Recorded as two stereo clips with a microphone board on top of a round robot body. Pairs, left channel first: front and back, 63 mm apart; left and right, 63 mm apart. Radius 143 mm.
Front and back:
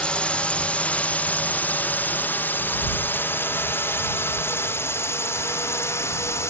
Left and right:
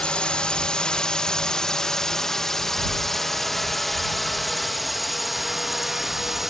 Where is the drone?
40° left; by 6.5 s 5° right.